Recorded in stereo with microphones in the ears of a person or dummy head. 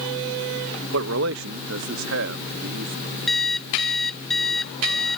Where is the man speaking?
70° right (ahead or behind); by 3.2 s 60° right (ahead or behind).